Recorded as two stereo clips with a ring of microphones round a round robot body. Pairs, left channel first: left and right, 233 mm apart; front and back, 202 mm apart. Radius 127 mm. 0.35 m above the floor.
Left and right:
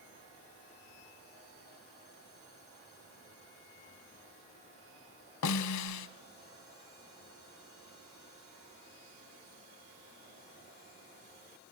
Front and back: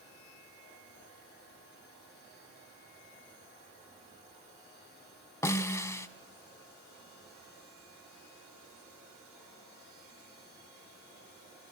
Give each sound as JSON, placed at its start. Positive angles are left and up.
{"t": 5.4, "sound": "a snare drum", "azimuth_deg": 75, "distance_m": 0.9}